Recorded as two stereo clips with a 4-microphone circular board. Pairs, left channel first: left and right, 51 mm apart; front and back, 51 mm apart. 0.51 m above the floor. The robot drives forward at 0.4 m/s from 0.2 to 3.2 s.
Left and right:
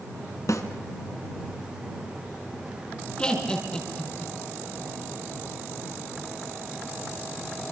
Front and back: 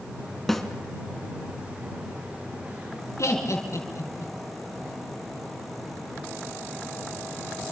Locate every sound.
0.5 s a snare drum: 85° left, 2.5 m
3.2 s laughter: 20° left, 5 m